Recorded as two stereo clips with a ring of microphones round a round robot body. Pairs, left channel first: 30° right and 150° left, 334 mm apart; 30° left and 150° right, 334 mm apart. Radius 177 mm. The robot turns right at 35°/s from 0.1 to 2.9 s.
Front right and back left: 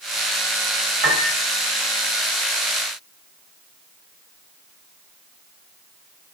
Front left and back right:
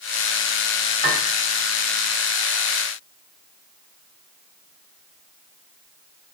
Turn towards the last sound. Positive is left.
turn(degrees=-150)